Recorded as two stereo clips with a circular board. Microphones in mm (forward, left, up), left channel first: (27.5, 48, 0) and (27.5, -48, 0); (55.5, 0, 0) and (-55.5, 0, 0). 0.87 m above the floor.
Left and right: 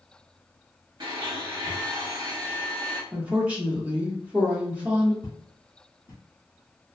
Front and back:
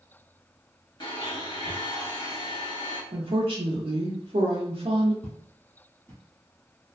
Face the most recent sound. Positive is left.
turn(degrees=65)